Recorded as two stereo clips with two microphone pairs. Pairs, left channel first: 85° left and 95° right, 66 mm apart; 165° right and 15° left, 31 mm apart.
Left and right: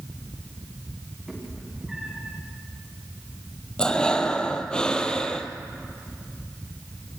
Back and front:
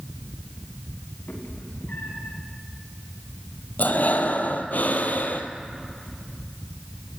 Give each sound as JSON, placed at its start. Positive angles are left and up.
{"t": 1.3, "sound": "a cat meowing", "azimuth_deg": -175, "distance_m": 5.0}
{"t": 3.8, "sound": "breathing", "azimuth_deg": 165, "distance_m": 1.1}